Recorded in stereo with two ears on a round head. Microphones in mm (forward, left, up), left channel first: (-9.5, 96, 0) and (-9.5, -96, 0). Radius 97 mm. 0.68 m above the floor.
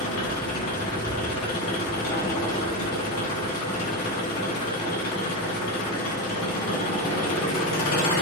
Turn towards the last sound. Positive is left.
turn(degrees=80)